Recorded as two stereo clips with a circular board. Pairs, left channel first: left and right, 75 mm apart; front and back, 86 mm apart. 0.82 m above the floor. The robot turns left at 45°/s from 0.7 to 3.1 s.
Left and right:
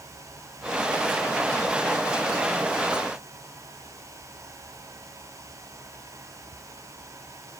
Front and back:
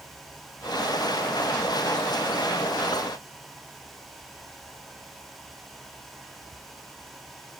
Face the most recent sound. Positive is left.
No sound to turn to.